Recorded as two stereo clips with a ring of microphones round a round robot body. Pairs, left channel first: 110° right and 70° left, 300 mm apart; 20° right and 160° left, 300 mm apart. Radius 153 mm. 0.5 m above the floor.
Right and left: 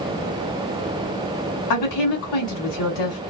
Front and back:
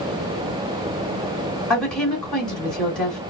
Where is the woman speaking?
110° right, 2 m.